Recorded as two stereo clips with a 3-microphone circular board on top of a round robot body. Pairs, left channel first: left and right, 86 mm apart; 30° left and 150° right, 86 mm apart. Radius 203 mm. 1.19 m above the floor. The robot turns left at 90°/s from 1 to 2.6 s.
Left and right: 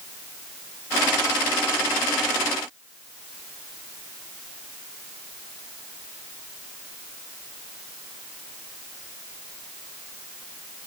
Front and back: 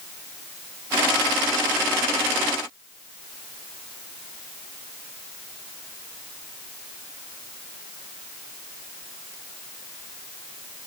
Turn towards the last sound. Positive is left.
No sound to turn to.